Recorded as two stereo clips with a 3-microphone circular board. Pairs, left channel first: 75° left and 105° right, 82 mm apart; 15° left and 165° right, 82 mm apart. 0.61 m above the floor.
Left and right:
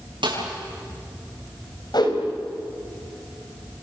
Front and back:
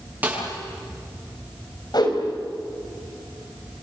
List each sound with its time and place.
0.2 s a snare drum: 95° right, 8.5 m
1.9 s a whoosh: 45° left, 4.5 m